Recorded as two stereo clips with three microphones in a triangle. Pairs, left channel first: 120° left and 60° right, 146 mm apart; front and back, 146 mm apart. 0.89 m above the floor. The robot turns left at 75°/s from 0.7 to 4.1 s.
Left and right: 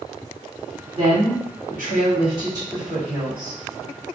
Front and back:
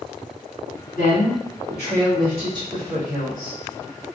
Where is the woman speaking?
5° right, 1.7 m; by 3.6 s 160° left, 1.7 m.